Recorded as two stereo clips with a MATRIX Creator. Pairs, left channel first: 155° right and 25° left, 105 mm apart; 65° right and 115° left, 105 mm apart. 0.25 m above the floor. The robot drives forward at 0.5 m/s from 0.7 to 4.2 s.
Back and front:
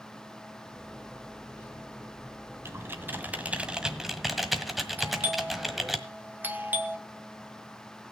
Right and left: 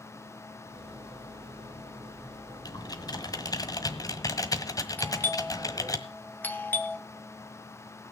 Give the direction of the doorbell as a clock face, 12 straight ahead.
1 o'clock.